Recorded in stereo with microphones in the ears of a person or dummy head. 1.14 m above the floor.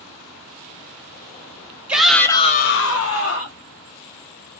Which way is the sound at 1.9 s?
Centre (ahead or behind).